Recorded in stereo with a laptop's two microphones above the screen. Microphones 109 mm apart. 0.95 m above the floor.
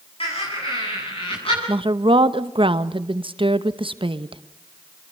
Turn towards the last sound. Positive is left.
turn(degrees=-55)  # may be behind; listen again after turning